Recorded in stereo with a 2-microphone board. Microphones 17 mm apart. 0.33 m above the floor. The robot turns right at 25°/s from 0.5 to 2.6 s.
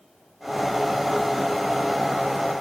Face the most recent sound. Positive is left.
No sound to turn to.